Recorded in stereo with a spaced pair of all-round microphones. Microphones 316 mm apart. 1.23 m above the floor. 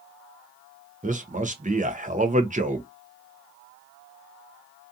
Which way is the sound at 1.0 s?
25° right (ahead or behind).